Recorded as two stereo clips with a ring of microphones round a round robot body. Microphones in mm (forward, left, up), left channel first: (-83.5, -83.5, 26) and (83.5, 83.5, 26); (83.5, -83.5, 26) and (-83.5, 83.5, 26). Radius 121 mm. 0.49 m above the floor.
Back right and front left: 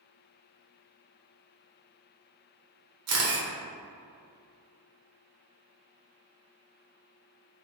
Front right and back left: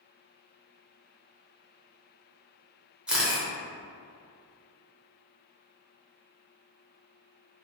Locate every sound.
3.1 s a camera shutter: 50° left, 1.0 m